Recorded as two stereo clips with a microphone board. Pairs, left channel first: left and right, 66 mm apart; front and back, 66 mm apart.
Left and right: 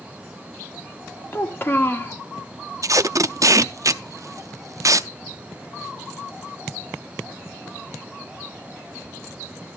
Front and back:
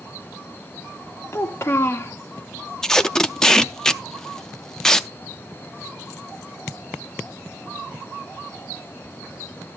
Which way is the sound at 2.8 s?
80° right.